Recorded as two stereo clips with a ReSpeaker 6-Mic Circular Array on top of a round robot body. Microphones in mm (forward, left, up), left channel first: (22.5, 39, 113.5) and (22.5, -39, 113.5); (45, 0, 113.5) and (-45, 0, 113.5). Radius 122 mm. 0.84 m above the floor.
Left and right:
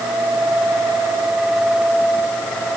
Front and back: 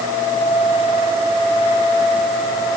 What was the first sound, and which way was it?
Only background noise.